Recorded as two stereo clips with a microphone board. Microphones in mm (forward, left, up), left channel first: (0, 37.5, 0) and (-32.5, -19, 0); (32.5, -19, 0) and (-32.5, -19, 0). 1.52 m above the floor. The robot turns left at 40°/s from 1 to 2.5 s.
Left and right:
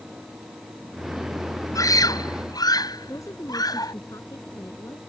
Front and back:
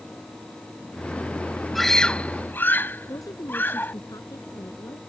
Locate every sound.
1.8 s a scream: 90° left; by 3.9 s 60° left
3.1 s a woman speaking: 25° left